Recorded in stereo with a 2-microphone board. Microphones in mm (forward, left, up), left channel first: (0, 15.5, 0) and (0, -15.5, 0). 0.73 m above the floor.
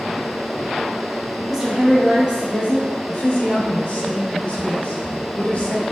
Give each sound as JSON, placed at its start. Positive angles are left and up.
{"t": 1.5, "sound": "a woman speaking", "side_deg": -5, "distance_m": 0.9}
{"t": 3.1, "sound": "a woman speaking", "side_deg": 45, "distance_m": 1.2}